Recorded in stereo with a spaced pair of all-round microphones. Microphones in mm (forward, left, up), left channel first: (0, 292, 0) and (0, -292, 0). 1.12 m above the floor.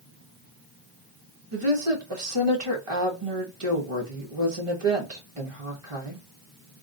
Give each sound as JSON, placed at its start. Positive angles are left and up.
{"t": 1.5, "sound": "a woman speaking", "side_deg": -60, "distance_m": 1.4}